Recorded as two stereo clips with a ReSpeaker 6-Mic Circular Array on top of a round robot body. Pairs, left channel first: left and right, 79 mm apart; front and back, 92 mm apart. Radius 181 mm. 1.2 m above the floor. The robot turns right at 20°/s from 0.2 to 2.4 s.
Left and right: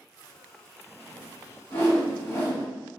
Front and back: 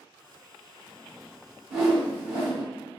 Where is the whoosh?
100° left, 1.4 m; by 2.6 s 115° left, 1.4 m.